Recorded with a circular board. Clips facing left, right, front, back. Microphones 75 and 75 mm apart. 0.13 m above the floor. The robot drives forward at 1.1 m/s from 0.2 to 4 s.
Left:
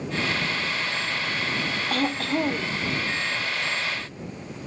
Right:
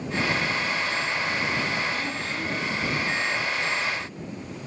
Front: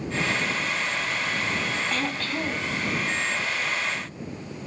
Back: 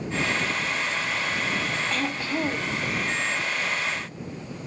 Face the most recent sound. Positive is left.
turn(degrees=150)